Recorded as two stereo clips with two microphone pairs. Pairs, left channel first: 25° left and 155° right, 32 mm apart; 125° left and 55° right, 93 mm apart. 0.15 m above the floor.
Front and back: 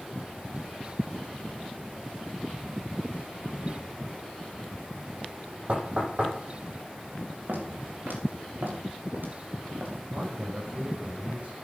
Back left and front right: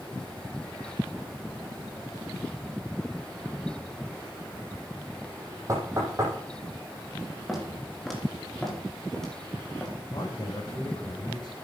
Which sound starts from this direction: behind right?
Footsteps, at 7.5 s.